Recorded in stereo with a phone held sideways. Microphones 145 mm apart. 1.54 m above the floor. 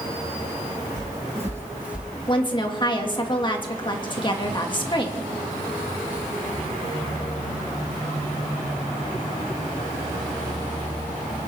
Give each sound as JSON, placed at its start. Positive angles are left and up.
{"t": 1.0, "sound": "footsteps", "side_deg": -20, "distance_m": 2.5}
{"t": 2.3, "sound": "a woman speaking", "side_deg": 35, "distance_m": 1.9}